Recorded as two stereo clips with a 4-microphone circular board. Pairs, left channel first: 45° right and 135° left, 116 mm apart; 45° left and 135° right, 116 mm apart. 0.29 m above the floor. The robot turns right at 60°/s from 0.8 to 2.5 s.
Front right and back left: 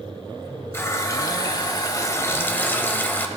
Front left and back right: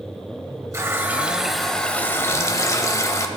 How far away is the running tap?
About 0.8 m.